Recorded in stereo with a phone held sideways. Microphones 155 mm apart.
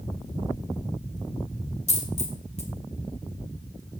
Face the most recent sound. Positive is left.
turn(degrees=45)  # may be behind; listen again after turning